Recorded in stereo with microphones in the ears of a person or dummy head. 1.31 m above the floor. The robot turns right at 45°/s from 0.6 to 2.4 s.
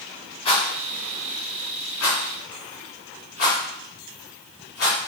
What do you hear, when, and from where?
0.5 s a rattle: 35° left (ahead or behind), 4 m; by 5.0 s 65° left (ahead or behind), 4 m